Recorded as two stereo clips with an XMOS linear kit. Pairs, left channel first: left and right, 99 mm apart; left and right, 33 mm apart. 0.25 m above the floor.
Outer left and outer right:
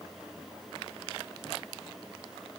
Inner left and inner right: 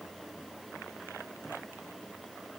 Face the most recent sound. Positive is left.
No sound to turn to.